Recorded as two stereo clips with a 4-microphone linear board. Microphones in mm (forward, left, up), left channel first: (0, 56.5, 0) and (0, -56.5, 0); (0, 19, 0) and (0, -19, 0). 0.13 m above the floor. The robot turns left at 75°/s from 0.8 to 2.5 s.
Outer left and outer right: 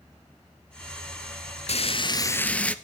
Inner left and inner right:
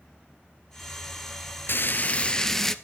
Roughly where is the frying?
Left.